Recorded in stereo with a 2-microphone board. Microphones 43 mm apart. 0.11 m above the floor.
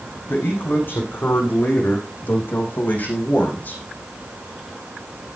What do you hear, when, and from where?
0.3 s a man speaking: 55° left (ahead or behind), 6.5 m; by 3.8 s 40° left (ahead or behind), 5 m